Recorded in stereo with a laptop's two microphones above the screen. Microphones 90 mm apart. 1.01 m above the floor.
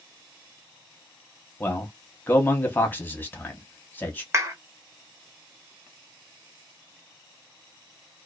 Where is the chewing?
No chewing in this recording.